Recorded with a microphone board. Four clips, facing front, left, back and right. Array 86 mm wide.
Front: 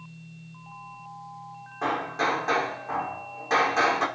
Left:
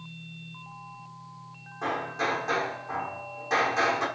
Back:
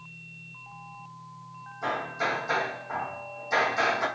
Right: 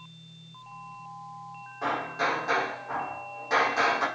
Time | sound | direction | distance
1.8 | hammering | 5° right | 4.5 m